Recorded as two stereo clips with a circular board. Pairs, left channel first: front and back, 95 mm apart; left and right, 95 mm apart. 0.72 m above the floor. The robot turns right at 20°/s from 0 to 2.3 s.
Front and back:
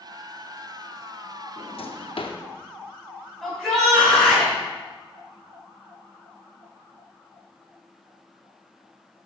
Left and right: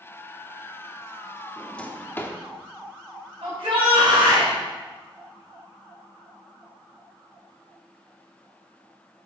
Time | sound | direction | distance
1.6 | a drawer | 10° left | 0.7 m
3.4 | a shout | 85° right | 3.5 m